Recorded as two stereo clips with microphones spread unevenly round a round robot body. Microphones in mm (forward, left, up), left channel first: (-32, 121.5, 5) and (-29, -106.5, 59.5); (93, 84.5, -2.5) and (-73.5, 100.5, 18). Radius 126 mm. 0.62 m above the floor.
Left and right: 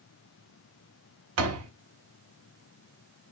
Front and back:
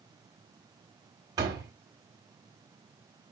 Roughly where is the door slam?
Right.